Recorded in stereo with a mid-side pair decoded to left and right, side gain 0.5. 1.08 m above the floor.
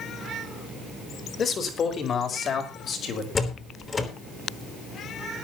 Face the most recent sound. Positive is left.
turn(degrees=30)